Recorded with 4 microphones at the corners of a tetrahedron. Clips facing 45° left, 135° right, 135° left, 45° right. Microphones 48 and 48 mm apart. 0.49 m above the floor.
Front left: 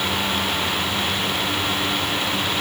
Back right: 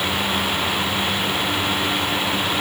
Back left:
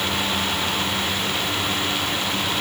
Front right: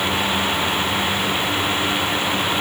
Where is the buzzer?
No buzzer in this recording.